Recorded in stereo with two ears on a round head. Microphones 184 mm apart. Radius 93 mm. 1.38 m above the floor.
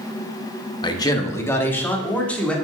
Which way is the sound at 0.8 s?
25° left (ahead or behind).